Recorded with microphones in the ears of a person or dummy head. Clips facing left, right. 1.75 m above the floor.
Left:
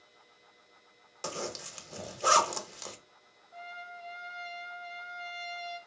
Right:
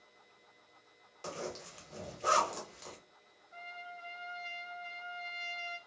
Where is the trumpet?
25° right (ahead or behind), 1.2 m.